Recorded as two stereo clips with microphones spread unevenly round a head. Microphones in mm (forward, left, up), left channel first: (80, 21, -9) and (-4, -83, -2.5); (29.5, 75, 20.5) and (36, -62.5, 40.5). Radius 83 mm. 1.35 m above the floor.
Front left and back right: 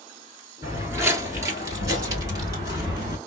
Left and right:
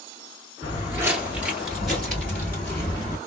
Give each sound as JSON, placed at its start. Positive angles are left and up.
{"t": 0.6, "sound": "footsteps", "azimuth_deg": -90, "distance_m": 1.4}